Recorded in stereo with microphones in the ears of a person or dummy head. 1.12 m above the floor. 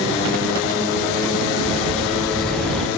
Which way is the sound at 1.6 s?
Centre (ahead or behind).